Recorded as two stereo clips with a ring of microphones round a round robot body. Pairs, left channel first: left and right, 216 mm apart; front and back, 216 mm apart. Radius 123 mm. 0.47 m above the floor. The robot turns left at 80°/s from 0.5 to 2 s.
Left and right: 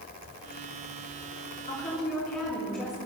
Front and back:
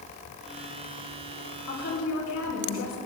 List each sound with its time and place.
1.7 s a woman speaking: 30° left, 5.5 m; by 3.0 s straight ahead, 5.5 m